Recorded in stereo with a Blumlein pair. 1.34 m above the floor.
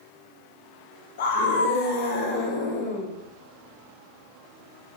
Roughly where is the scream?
Ahead left.